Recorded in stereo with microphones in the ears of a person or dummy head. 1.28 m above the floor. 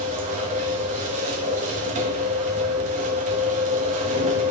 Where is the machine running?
40° right (ahead or behind), 1.3 m.